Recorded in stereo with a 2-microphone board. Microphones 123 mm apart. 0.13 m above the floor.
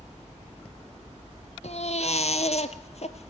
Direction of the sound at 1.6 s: 60° left (ahead or behind).